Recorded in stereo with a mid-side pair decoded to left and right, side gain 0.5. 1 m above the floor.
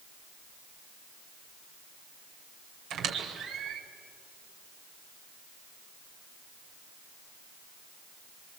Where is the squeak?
65° right, 2.5 m.